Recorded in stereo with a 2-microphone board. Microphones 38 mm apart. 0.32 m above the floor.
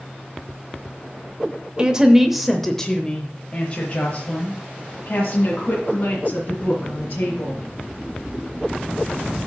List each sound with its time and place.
1.8 s a woman speaking: 20° right (ahead or behind), 0.9 m; by 7.6 s 50° left (ahead or behind), 3.5 m